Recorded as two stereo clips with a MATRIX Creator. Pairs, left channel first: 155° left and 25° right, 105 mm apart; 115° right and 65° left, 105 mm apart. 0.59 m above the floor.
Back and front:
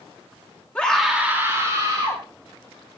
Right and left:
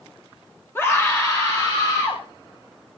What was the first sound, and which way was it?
A scream, 145° right.